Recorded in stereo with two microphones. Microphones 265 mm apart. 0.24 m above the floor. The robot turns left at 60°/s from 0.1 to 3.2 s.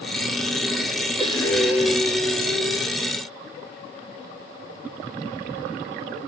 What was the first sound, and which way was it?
Breathing, 25° left.